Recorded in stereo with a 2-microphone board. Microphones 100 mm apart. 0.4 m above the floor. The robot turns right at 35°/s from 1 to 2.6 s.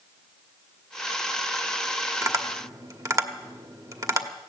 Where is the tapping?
35° right (ahead or behind), 1.1 m.